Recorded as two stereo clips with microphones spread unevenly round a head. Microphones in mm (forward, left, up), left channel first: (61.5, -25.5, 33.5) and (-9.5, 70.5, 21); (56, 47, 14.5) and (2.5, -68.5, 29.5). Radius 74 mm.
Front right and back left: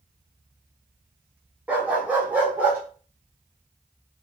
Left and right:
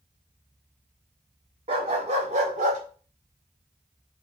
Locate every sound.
1.7 s a dog barking: 150° right, 1.5 m